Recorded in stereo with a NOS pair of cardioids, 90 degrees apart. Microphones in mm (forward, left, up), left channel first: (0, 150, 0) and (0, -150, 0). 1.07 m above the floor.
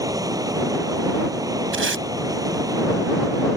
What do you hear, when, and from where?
0.0 s running water: 10° right
1.7 s tape being pulled: 40° right